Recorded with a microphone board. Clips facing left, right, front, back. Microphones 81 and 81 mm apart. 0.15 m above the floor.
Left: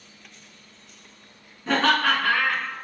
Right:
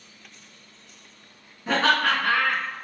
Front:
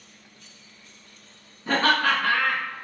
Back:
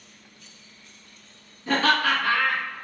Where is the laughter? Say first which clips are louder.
Left 1 dB, even; 15° right, 1.3 m; by 2.7 s 10° left, 1.8 m.